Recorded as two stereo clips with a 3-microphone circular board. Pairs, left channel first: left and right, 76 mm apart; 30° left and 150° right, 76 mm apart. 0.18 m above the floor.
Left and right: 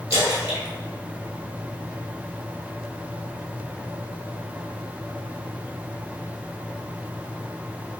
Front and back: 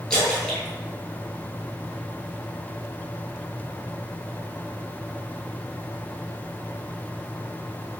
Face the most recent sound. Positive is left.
turn(degrees=-45)